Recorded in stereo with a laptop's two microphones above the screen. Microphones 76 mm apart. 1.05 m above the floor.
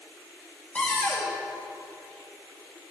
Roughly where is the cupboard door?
Centre.